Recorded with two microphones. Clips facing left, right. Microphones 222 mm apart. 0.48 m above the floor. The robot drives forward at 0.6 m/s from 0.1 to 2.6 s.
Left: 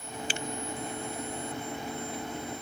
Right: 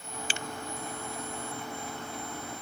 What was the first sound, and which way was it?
Only background noise.